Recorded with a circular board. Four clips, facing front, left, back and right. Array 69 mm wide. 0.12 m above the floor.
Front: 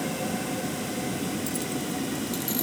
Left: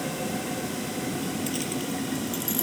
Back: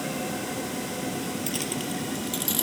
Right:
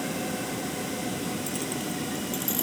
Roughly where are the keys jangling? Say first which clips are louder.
Left 2 dB, front 1 dB; behind left.